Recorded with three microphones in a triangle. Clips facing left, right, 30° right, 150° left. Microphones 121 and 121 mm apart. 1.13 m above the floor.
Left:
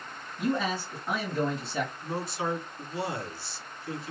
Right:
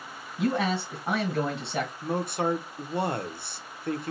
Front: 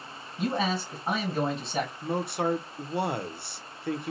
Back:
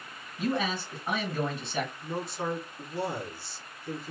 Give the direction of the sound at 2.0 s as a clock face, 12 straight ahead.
2 o'clock.